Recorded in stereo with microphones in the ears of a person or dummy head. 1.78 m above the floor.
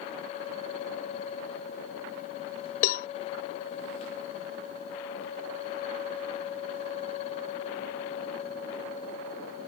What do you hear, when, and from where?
2.8 s a cowbell: 50° left (ahead or behind)